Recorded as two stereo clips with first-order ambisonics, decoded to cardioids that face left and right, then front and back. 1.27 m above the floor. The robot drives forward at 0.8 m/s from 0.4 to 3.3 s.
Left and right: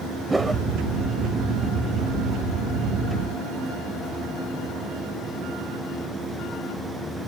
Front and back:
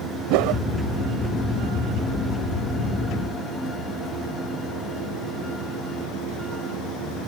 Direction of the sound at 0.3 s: 175° right.